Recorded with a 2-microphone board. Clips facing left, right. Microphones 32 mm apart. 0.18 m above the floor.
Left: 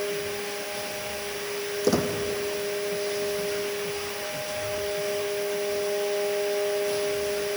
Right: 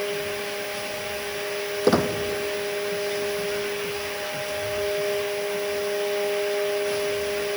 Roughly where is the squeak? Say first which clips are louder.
Right 4 dB; right.